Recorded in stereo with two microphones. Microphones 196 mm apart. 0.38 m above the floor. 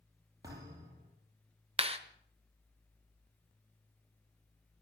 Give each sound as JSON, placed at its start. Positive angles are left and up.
{"t": 0.4, "sound": "a thud", "side_deg": -20, "distance_m": 4.5}
{"t": 1.8, "sound": "a clap", "side_deg": -30, "distance_m": 1.0}